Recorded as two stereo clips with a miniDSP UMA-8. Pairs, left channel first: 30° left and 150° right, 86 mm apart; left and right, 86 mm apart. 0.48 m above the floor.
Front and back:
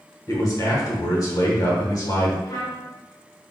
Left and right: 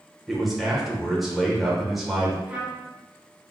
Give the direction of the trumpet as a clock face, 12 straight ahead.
12 o'clock.